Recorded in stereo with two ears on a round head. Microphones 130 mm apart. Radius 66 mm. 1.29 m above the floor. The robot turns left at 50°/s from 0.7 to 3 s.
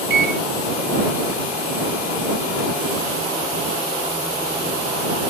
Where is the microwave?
80° right.